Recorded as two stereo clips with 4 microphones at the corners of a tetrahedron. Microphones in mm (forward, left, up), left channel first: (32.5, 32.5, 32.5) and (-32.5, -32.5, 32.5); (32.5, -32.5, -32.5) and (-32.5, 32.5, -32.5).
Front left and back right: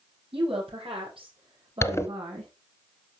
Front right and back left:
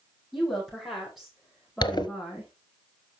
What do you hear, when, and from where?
0.3 s a woman speaking: 135° right, 7.5 m; by 2.5 s 130° right, 6.5 m
1.8 s a zipper: 15° right, 1.1 m